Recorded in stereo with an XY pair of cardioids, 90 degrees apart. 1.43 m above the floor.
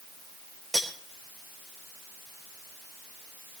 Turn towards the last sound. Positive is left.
turn(degrees=-15)